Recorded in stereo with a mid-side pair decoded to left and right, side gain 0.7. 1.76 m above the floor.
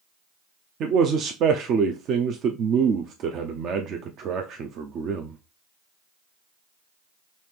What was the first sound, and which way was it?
A man speaking, 45° right.